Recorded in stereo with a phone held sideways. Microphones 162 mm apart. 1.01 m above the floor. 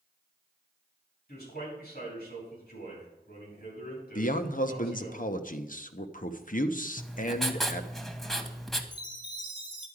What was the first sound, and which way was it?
A man speaking, 75° left (ahead or behind).